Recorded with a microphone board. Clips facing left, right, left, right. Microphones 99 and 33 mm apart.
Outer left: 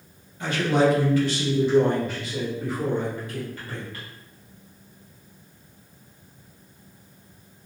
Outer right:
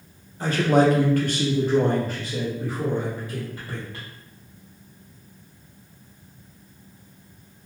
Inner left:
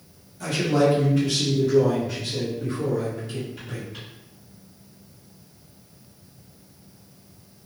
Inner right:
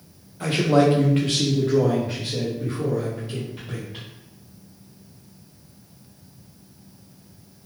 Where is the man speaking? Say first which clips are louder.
Outer right 2 dB, inner right 3 dB; 35° right (ahead or behind), 0.6 m; by 4.0 s 25° right (ahead or behind), 1.7 m.